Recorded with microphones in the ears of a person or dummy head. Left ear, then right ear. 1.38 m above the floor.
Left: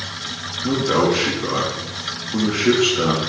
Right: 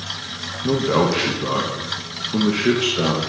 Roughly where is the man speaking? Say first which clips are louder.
Even; right.